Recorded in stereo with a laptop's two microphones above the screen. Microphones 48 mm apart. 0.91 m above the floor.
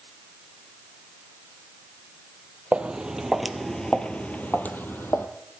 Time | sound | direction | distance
2.7 | footsteps | 20° right (ahead or behind) | 1.3 m